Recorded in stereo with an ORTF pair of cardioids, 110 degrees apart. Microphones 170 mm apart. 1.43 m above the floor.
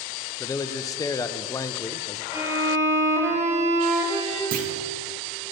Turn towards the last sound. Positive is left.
turn(degrees=-60)